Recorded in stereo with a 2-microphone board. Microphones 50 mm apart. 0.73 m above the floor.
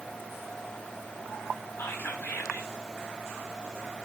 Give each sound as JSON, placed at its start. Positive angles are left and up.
{"t": 1.8, "sound": "whispering", "side_deg": 60, "distance_m": 4.5}